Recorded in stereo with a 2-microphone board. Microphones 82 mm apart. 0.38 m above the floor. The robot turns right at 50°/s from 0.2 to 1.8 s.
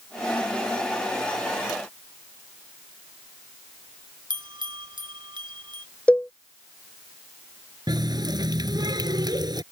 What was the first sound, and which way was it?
A bell, 70° right (ahead or behind).